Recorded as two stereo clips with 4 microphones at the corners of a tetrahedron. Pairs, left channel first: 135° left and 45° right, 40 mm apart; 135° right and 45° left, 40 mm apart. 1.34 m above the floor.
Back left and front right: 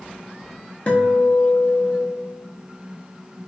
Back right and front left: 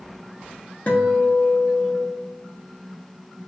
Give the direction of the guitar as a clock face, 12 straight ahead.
6 o'clock.